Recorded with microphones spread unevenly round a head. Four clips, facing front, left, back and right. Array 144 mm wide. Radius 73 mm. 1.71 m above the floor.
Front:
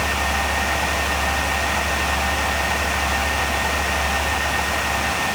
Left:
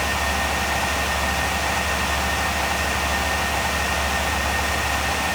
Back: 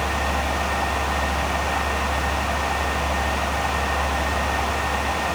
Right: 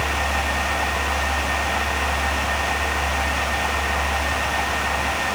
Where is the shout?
I don't hear a shout.